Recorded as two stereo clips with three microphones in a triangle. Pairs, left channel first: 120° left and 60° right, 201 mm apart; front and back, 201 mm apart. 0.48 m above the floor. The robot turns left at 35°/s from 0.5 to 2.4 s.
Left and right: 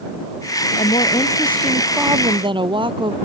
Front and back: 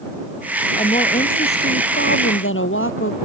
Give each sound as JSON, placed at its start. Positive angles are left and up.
{"t": 0.8, "sound": "a woman speaking", "azimuth_deg": 65}